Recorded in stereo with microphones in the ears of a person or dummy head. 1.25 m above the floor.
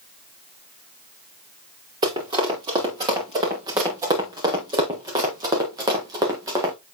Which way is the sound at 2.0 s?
25° right (ahead or behind).